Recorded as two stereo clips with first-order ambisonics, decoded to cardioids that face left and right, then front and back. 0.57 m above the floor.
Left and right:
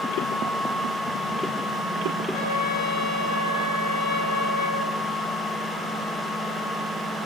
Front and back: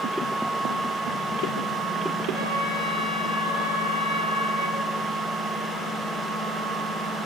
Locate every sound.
2.3 s a trumpet: 70° left, 4.5 m